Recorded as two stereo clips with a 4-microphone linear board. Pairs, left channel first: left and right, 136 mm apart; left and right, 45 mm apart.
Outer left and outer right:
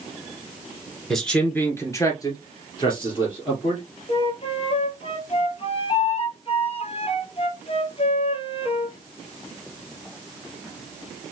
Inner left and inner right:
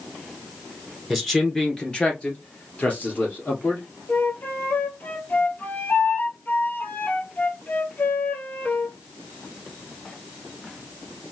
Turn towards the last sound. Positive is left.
turn(degrees=45)  # may be behind; listen again after turning